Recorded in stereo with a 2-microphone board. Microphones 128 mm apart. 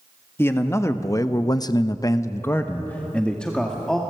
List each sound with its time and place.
0.4 s a man speaking: 20° left (ahead or behind), 1.3 m; by 4.0 s 5° left (ahead or behind), 1.8 m